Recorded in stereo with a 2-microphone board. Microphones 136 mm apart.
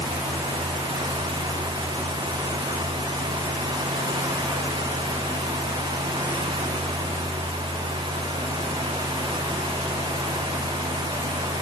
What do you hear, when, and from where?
Only background noise.